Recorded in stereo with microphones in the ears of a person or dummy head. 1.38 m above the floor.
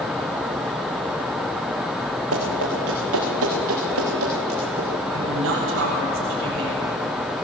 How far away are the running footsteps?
About 7.5 m.